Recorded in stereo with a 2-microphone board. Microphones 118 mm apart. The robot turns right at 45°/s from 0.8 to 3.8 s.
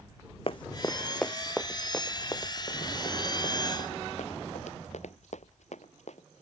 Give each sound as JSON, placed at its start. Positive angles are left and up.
{"t": 0.5, "sound": "running footsteps", "side_deg": 55}